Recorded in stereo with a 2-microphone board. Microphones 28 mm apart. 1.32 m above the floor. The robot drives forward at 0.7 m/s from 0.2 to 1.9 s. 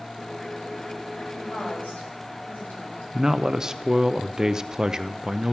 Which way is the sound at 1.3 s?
85° left.